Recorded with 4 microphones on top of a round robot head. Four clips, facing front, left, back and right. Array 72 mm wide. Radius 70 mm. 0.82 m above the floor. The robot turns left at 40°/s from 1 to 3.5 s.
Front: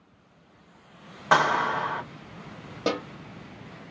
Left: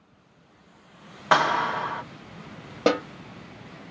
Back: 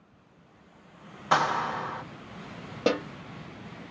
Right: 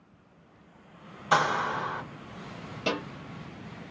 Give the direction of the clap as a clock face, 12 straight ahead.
10 o'clock.